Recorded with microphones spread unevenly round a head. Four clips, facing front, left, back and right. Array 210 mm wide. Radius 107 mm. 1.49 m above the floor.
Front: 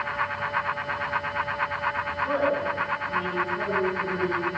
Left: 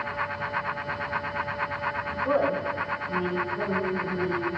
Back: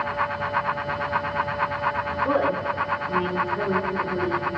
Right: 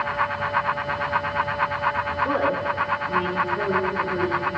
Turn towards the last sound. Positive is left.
turn(degrees=-115)